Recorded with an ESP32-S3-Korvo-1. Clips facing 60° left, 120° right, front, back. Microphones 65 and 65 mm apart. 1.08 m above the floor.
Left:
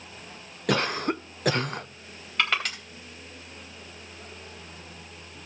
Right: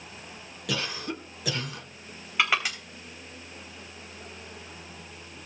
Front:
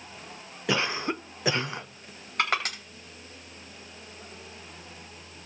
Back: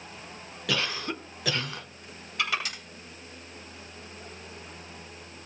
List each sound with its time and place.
0.7 s a cough: 60° left, 0.9 m
2.4 s crushing: 40° right, 4 m